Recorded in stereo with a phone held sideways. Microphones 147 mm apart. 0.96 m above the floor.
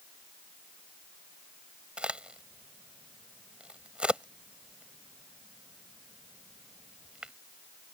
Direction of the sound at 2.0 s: 5° right (ahead or behind).